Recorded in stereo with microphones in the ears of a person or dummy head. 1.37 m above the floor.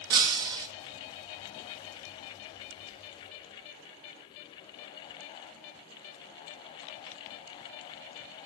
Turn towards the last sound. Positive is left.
turn(degrees=-15)  # may be behind; listen again after turning